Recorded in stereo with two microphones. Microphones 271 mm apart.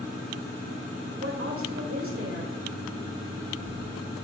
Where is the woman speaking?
50° right (ahead or behind), 2 m.